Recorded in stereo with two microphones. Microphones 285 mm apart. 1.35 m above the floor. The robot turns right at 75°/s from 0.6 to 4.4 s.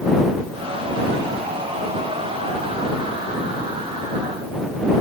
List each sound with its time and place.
Only background noise.